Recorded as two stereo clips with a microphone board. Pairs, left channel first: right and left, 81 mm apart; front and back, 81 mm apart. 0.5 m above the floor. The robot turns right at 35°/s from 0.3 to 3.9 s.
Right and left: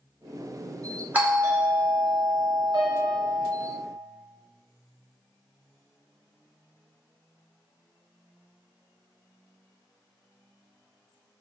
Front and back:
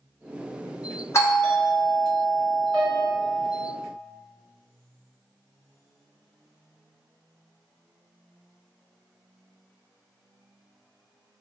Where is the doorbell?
30° left, 1.8 m; by 3.5 s 115° left, 1.8 m.